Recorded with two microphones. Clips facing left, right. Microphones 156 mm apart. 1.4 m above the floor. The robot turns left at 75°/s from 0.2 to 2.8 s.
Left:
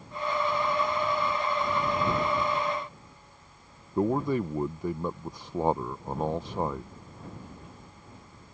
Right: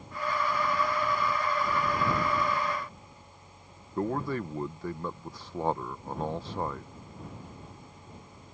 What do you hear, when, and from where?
4.0 s a man speaking: 15° left (ahead or behind)